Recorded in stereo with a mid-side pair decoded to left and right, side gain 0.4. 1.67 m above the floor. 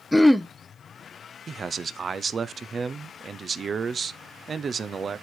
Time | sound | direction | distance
0.1 | throat clearing | 5° left | 0.7 m
1.5 | a man speaking | 45° right | 0.8 m